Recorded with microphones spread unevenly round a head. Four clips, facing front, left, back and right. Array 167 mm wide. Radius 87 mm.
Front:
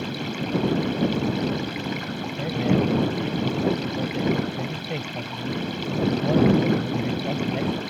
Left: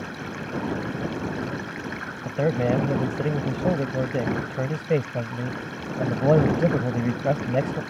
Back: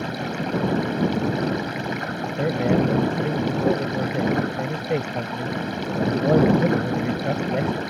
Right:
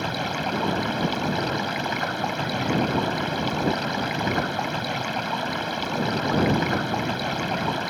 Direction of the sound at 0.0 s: 120° right.